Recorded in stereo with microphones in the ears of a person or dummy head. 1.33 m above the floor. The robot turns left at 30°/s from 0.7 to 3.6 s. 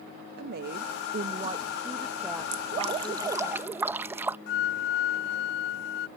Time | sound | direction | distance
0.4 | a woman speaking | 120° right | ?
2.5 | dripping | 130° right | ?
4.5 | a flute | 55° left (ahead or behind) | ?